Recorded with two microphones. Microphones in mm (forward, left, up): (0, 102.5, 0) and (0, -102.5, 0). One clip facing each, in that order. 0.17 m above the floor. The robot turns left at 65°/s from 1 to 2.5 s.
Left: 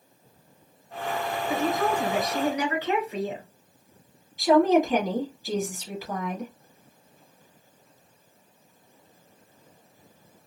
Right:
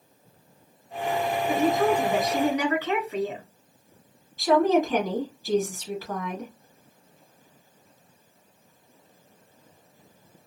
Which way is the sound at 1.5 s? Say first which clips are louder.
Right 3 dB; 150° right.